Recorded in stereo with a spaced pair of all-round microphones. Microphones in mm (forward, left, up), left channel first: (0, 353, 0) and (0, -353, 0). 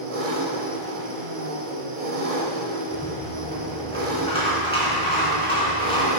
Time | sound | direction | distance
0.0 | an engine running | 55° right (ahead or behind) | 1.0 m
2.9 | a rattle | 10° left (ahead or behind) | 2.5 m